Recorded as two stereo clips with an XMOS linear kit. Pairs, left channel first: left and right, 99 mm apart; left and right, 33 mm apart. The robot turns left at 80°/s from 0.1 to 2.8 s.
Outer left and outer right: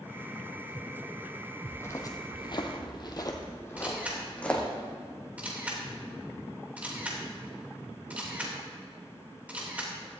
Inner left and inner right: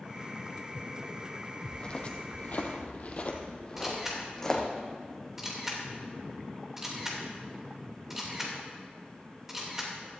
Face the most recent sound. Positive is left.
turn(degrees=-15)  # may be behind; listen again after turning